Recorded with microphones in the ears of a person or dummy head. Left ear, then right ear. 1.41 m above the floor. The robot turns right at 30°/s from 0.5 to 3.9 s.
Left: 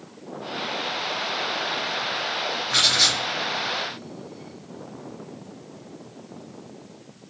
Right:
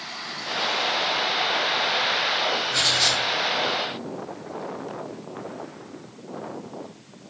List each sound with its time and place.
2.7 s writing: 65° left (ahead or behind), 0.5 m; by 3.2 s 70° left (ahead or behind), 0.5 m